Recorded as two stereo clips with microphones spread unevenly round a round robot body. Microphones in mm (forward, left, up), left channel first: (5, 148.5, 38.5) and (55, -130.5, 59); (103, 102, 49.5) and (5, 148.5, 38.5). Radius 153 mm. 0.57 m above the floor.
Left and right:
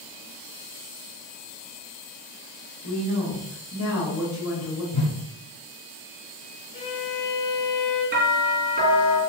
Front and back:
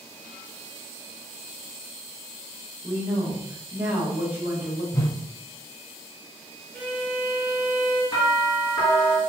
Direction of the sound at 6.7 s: 60° left.